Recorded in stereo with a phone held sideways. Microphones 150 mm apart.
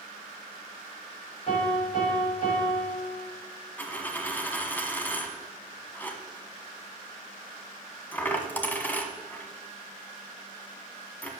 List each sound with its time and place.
1.5 s a piano: 50° left (ahead or behind), 5 m
3.8 s a dropped coin: 10° left (ahead or behind), 1.3 m